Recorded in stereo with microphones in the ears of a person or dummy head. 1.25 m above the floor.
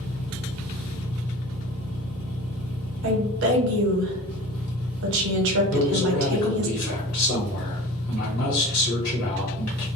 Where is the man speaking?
85° left, 1.4 m.